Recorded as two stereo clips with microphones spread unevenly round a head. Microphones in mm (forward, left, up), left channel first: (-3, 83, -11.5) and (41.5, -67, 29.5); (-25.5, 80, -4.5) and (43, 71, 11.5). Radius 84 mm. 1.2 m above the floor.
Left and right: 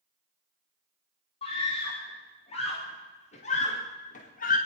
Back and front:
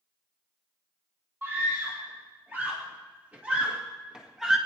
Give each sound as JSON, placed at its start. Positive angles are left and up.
{"t": 1.4, "sound": "a scream", "azimuth_deg": 50, "distance_m": 3.0}